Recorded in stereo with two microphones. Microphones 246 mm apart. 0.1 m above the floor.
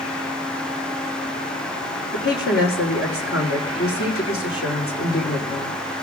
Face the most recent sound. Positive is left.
turn(degrees=65)  # may be behind; listen again after turning